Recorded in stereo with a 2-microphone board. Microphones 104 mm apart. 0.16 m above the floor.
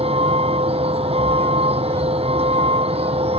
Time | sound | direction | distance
0.0 | a vehicle | 75° right (ahead or behind) | ?